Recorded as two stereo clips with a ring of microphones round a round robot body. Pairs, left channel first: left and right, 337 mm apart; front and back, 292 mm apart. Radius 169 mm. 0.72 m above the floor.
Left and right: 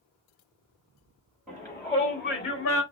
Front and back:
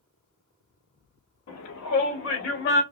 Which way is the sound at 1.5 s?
Straight ahead.